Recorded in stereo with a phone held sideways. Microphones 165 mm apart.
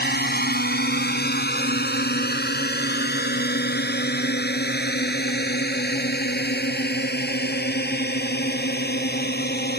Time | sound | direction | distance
0.0 | a drone | 75° left (ahead or behind) | ?